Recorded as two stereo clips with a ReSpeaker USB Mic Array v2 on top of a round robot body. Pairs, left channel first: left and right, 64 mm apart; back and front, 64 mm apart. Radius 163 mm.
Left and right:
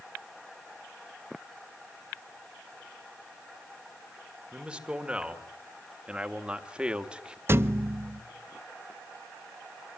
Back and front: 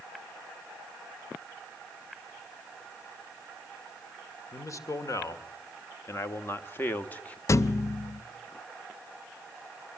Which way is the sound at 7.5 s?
140° right.